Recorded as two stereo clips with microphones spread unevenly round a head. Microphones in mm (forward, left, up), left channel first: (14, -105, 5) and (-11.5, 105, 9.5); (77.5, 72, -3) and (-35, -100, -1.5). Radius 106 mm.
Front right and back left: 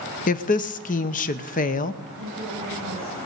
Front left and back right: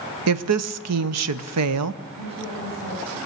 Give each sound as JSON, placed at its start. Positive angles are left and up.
{"t": 0.3, "sound": "a woman speaking", "azimuth_deg": -140, "distance_m": 0.8}
{"t": 2.1, "sound": "a woman speaking", "azimuth_deg": 145, "distance_m": 8.5}